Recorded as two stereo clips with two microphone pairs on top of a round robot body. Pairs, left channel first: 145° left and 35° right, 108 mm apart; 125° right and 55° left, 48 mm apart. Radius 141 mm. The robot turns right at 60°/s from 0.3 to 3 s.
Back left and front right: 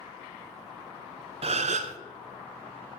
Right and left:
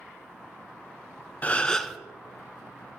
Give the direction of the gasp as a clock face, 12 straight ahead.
2 o'clock.